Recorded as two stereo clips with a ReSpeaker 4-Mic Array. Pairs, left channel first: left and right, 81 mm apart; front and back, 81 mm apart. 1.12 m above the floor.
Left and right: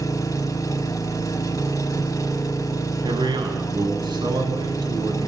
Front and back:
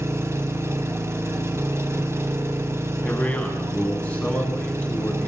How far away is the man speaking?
About 8.5 m.